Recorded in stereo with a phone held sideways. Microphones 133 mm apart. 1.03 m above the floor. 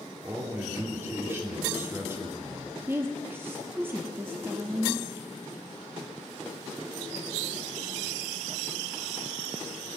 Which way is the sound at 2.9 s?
15° right (ahead or behind).